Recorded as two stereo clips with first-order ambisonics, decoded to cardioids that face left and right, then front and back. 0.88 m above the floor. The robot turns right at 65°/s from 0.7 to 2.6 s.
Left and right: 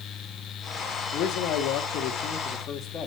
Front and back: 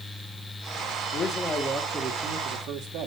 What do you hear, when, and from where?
1.1 s a man speaking: 45° left, 1.9 m; by 3.1 s 140° left, 1.9 m